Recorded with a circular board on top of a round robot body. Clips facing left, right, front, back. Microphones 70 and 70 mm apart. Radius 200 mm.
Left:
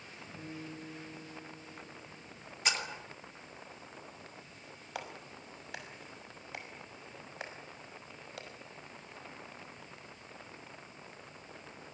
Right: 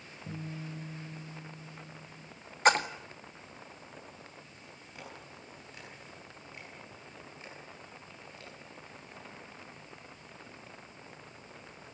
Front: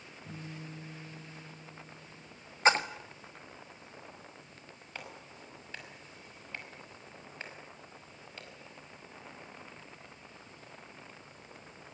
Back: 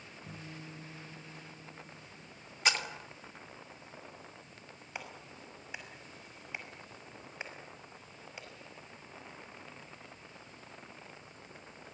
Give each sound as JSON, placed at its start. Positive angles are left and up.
{"t": 0.3, "sound": "a guitar", "azimuth_deg": -100, "distance_m": 6.5}
{"t": 2.6, "sound": "a splash", "azimuth_deg": -55, "distance_m": 1.9}
{"t": 5.0, "sound": "a clap", "azimuth_deg": 100, "distance_m": 5.5}